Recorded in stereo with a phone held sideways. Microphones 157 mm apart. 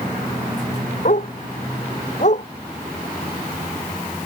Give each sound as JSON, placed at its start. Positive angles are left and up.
{"t": 1.1, "sound": "a dog barking", "side_deg": 55}